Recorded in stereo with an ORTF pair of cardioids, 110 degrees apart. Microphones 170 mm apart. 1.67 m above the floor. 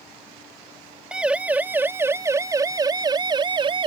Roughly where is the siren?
Ahead.